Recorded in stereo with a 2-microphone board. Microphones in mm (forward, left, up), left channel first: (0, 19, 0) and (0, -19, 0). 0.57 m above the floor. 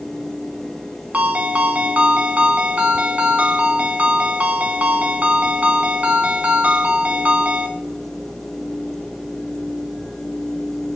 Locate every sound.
1.1 s a ringtone: 40° right (ahead or behind), 2 m